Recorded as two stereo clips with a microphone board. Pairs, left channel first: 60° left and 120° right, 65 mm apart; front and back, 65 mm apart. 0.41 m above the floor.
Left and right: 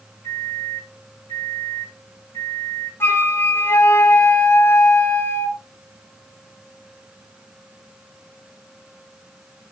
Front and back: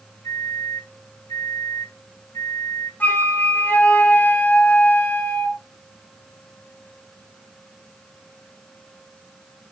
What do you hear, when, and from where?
0.2 s a microwave: 20° left, 2 m
3.0 s a flute: 40° left, 1.8 m